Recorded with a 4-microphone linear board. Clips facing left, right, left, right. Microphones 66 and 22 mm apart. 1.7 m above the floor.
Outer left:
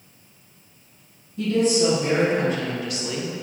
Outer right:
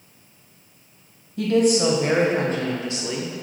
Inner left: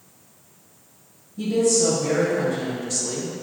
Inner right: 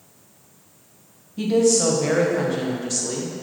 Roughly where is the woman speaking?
Right.